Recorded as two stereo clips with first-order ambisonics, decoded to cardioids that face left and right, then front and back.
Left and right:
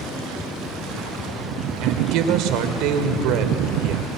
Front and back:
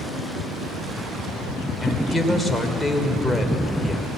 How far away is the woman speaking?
About 2.5 m.